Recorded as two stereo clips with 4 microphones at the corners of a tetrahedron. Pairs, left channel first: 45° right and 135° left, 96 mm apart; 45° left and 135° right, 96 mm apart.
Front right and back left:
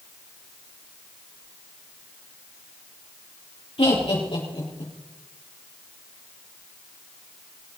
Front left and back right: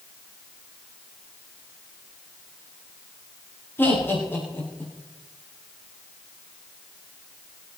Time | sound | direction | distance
3.8 | laughter | 20° right | 7 m